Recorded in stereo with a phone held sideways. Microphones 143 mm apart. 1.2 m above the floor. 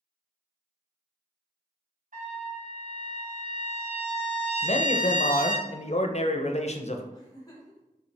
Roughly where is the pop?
I don't hear a pop.